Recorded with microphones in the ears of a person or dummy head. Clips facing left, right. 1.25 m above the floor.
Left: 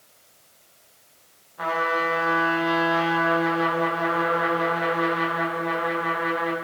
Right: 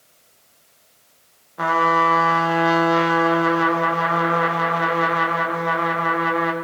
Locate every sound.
1.6 s a trumpet: 60° right (ahead or behind), 0.8 m